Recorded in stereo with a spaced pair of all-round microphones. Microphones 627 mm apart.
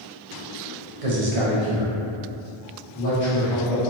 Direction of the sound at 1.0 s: 65° right (ahead or behind).